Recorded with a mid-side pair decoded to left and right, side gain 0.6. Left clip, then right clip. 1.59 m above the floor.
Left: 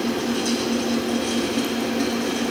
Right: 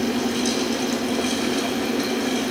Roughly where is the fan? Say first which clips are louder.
Right 1 dB; ahead right.